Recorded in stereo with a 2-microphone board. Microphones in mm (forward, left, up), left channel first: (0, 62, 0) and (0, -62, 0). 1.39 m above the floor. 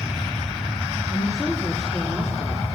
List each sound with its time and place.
1.1 s a woman speaking: 30° left (ahead or behind), 3 m